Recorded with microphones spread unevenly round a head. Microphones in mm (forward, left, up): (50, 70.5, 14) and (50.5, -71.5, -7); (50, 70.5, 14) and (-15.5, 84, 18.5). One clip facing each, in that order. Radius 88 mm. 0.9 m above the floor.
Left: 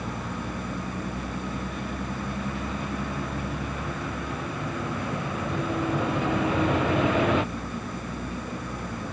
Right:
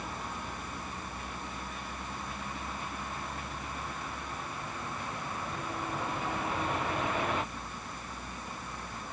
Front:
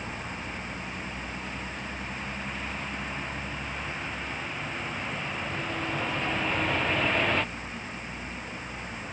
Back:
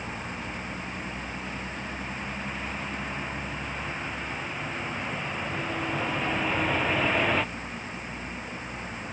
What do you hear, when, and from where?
0.0 s a vehicle: 85° left